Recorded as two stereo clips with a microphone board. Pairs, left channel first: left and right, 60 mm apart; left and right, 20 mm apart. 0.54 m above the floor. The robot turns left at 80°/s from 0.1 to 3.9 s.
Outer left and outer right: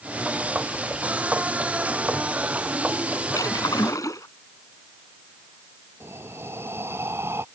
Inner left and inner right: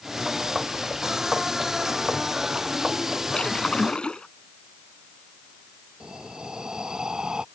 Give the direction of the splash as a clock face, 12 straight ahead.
8 o'clock.